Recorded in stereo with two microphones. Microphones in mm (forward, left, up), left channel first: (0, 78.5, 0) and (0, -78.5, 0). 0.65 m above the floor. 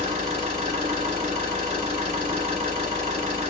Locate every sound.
0.0 s an engine running: 40° right (ahead or behind), 1.4 m